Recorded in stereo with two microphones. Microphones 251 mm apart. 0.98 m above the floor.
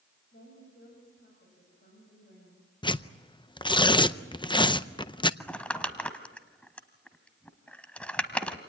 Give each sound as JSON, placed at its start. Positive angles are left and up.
{"t": 0.3, "sound": "a woman speaking", "side_deg": 55, "distance_m": 6.0}
{"t": 2.8, "sound": "tearing paper", "side_deg": 20, "distance_m": 0.5}
{"t": 5.4, "sound": "crumpling", "side_deg": 5, "distance_m": 1.3}